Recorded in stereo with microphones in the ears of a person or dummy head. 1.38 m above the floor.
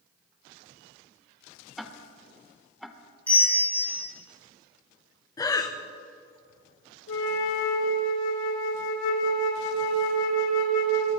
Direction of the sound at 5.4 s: 25° left (ahead or behind).